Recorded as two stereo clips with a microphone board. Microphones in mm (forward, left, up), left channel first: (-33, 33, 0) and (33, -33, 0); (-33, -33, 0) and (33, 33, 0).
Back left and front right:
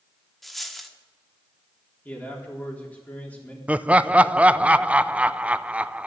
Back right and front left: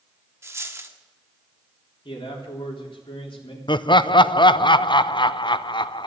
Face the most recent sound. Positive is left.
turn(degrees=-120)